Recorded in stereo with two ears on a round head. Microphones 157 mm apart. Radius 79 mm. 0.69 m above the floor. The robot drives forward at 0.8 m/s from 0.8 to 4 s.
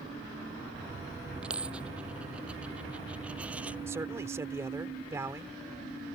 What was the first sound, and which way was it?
A dropped coin, 5° right (ahead or behind).